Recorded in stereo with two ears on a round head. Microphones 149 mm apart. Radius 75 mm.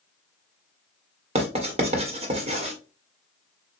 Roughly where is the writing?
Right.